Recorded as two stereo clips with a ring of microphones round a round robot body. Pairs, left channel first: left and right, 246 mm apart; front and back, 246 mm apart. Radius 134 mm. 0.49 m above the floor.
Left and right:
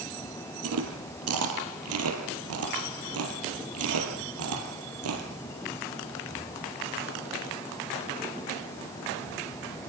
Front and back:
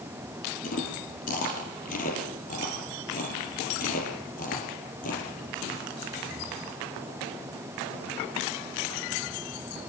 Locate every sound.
0.6 s chewing: 65° right, 4.5 m